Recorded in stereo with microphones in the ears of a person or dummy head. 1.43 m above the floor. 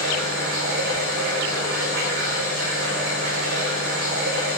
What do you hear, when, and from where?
0.0 s running water: 70° right (ahead or behind), 5 m